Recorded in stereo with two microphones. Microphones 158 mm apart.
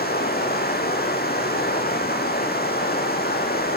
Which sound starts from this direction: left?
Running water, at 0.0 s.